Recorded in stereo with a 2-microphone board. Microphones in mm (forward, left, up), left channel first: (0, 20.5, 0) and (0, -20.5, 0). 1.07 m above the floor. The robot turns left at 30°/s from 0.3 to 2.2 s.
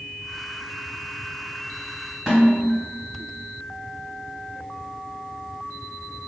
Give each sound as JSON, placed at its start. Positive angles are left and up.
{"t": 2.3, "sound": "a snare drum", "side_deg": -5, "distance_m": 1.5}